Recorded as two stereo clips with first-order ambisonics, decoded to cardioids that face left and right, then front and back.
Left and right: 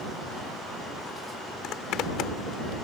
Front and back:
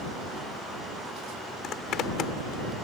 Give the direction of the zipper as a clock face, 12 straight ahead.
10 o'clock.